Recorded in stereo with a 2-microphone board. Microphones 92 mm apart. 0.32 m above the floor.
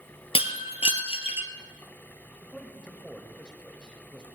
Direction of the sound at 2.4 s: 10° left (ahead or behind).